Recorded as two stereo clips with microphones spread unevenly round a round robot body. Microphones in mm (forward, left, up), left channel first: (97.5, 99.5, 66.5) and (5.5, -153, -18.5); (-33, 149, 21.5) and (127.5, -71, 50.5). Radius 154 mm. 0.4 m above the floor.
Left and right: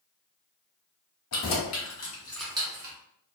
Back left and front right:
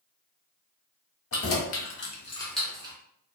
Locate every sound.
1.3 s keys jangling: 105° left, 1.1 m; by 3.0 s 125° right, 0.8 m